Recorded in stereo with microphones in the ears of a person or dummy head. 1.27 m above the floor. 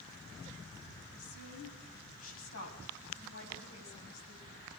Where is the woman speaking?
90° left, 9.5 m; by 4.6 s 65° left (ahead or behind), 10.5 m.